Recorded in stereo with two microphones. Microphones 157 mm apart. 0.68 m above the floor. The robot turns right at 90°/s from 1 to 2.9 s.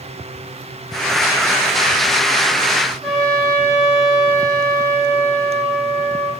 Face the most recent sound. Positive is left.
turn(degrees=0)  # may be behind; listen again after turning